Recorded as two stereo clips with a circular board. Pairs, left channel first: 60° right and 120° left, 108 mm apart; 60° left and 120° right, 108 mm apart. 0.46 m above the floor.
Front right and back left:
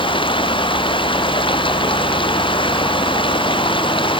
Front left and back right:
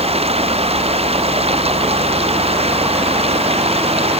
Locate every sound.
0.0 s running water: 100° right